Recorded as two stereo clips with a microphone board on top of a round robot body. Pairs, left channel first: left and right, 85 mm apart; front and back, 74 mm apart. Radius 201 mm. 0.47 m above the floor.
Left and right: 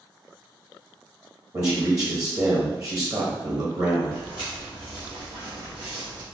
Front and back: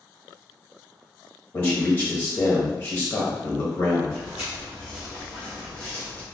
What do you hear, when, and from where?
1.5 s a man speaking: 55° right, 1.5 m
4.1 s footsteps: 120° right, 0.5 m; by 6.2 s 70° right, 1.3 m